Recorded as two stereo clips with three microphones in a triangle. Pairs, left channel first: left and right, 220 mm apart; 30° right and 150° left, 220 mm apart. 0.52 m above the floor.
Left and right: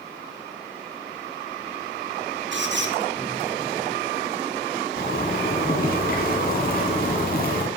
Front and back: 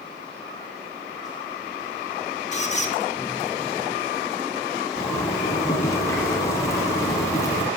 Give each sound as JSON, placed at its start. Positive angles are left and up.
{"t": 2.5, "sound": "a squeak", "azimuth_deg": -80, "distance_m": 1.1}
{"t": 5.0, "sound": "a zipper", "azimuth_deg": 45, "distance_m": 1.8}